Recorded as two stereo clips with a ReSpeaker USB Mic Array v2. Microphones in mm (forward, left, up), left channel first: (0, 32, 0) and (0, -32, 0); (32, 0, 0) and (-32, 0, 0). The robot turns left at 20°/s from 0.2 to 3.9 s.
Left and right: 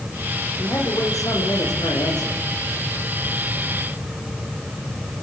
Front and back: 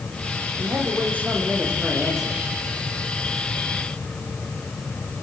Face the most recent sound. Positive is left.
turn(degrees=65)